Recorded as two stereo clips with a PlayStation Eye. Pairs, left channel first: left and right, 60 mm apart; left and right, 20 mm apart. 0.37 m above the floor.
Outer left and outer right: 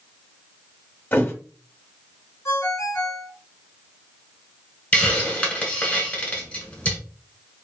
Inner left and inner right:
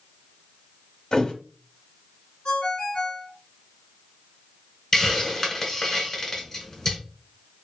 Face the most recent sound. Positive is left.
turn(degrees=20)  # may be behind; listen again after turning